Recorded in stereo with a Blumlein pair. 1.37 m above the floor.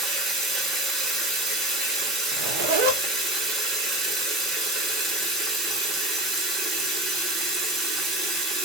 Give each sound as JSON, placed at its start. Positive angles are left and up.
{"t": 0.0, "sound": "running water", "azimuth_deg": -10, "distance_m": 1.0}
{"t": 2.3, "sound": "a zipper", "azimuth_deg": -50, "distance_m": 0.5}